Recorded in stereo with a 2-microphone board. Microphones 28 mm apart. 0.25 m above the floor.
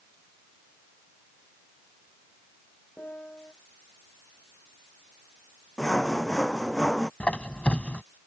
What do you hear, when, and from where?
3.0 s a piano: 70° left (ahead or behind)
5.8 s sawing: 25° left (ahead or behind)
7.2 s a squeak: 55° left (ahead or behind)